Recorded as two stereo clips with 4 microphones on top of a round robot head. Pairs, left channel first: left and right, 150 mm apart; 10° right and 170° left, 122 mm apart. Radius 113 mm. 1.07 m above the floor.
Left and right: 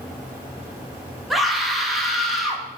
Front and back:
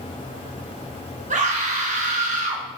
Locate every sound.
1.3 s a scream: straight behind, 1.9 m